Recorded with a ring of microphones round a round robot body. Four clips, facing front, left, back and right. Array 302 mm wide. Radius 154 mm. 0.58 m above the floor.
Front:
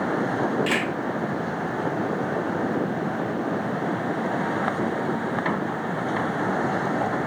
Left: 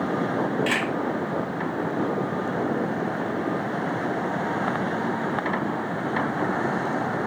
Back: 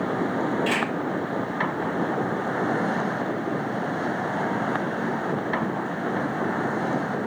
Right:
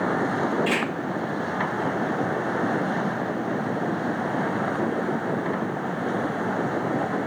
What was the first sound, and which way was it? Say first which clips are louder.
A camera shutter: right 1 dB, even; 80° left.